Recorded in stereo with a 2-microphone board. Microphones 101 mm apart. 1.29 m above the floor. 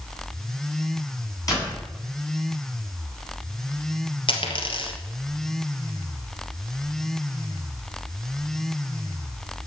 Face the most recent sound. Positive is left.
turn(degrees=55)  # may be behind; listen again after turning